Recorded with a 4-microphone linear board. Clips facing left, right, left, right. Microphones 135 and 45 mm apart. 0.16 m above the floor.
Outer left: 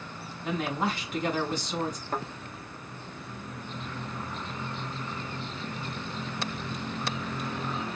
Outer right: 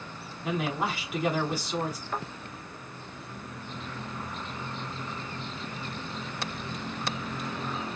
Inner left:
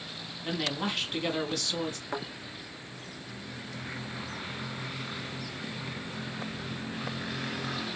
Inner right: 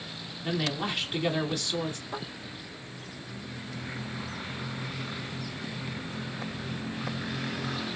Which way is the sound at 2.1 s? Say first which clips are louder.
Outer left 3 dB, inner left 2 dB; 45° left (ahead or behind).